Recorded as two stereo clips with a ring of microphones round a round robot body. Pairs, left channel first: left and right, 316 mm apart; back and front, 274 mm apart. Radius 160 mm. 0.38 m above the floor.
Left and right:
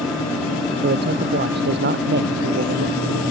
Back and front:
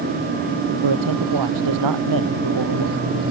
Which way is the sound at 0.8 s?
30° right.